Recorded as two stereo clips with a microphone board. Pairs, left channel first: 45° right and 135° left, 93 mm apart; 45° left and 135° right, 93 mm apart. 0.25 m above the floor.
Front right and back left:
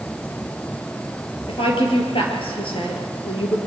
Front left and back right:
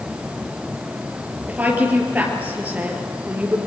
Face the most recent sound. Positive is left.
turn(degrees=-60)